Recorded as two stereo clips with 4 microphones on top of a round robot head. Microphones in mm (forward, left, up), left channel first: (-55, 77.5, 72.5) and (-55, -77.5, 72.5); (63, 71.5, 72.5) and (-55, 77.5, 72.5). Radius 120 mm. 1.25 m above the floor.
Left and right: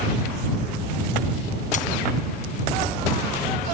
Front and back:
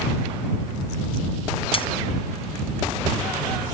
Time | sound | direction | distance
1.7 | a dropped coin | 40° left | ?